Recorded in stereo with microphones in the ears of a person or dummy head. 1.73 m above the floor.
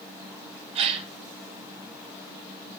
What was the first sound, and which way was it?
A gasp, 30° right (ahead or behind).